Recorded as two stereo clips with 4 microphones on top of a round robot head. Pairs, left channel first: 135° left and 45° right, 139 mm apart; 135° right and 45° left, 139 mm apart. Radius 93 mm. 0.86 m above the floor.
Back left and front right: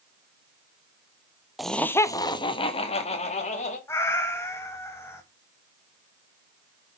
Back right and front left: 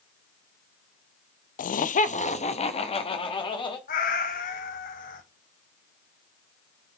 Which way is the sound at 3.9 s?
155° right.